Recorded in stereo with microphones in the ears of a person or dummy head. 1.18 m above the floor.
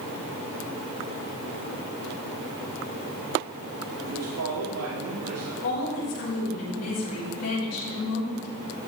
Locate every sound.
4.0 s a man speaking: 85° right, 2 m
5.6 s a woman speaking: 85° left, 5.5 m